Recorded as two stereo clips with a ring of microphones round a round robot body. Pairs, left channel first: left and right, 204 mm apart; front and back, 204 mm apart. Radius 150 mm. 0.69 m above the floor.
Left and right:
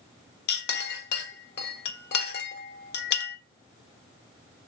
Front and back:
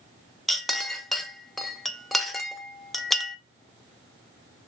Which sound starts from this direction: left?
A clink, at 0.5 s.